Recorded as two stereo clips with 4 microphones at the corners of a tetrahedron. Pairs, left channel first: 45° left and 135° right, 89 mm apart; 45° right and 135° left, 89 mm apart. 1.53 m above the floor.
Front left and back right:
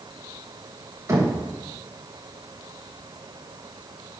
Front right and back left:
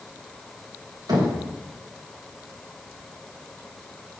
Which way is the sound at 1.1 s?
175° left.